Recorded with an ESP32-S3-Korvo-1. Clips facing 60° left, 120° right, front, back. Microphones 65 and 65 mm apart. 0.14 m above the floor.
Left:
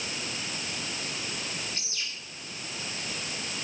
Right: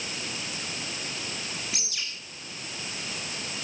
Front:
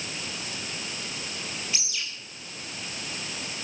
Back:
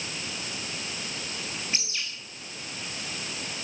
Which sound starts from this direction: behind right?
A bird, at 1.7 s.